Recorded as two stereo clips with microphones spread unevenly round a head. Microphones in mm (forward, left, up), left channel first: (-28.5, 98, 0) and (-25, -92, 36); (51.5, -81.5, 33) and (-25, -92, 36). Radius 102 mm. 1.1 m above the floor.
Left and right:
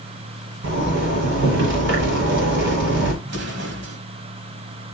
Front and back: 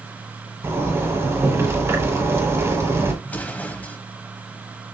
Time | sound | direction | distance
0.6 | a zipper | 115° right | 4 m
3.2 | an explosion | 60° right | 2 m